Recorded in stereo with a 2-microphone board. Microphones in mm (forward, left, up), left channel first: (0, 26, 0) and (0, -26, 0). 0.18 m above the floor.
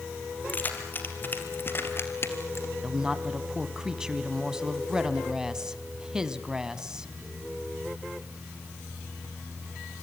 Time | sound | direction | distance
0.5 | keys jangling | 35° left (ahead or behind) | 3 m
2.8 | a woman speaking | 10° right (ahead or behind) | 1.2 m